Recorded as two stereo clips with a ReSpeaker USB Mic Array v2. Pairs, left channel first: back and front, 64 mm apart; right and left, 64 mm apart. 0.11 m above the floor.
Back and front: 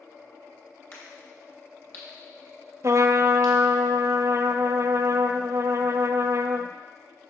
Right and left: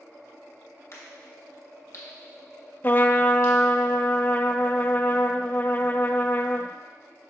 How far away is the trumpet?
About 0.5 m.